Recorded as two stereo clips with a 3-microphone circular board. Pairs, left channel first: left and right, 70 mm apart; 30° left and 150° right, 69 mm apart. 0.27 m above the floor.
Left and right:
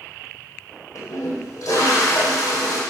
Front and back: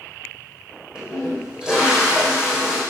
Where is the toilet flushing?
130° left, 3.5 m.